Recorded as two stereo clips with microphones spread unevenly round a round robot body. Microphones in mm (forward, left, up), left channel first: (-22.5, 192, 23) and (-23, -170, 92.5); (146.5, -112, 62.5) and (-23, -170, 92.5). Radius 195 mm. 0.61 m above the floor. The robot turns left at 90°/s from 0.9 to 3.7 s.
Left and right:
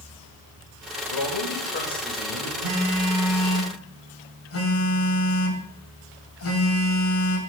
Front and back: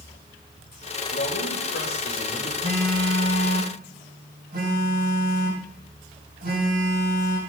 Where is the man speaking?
80° left, 3 m; by 2.5 s 45° right, 3 m.